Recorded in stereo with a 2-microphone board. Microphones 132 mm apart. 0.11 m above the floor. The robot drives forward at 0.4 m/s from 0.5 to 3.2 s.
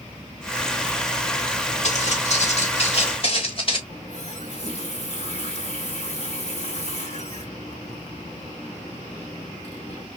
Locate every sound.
1.8 s footsteps: 60° left (ahead or behind), 3 m; by 3.8 s 40° left (ahead or behind), 1.8 m
3.9 s a running tap: 50° left (ahead or behind), 3 m